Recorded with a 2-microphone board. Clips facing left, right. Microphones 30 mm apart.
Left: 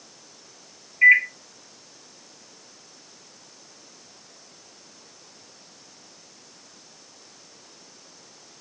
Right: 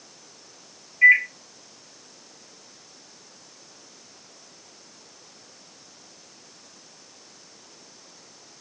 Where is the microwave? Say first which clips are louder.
Even; 15° left (ahead or behind), 0.9 m.